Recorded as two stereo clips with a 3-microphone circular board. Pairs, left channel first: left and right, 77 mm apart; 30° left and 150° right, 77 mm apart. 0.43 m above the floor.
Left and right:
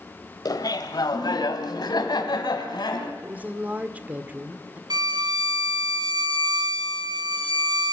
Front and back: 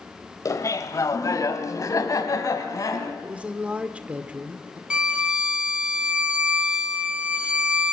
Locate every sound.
0.5 s laughter: 70° left, 1.6 m
3.2 s a woman speaking: 110° right, 1.2 m
4.9 s a violin: 75° right, 2 m